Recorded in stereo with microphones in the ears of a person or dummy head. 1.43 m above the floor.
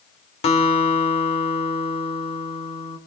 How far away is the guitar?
About 2 m.